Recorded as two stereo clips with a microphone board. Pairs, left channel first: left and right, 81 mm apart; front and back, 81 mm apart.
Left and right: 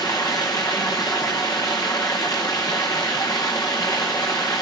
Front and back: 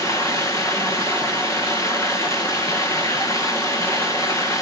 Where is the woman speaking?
No woman speaking in this recording.